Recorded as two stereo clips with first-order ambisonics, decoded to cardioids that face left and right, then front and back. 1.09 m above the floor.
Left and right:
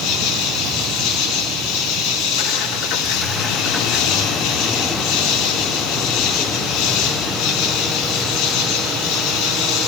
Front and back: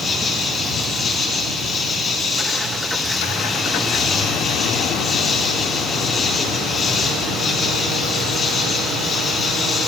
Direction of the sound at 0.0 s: 70° left.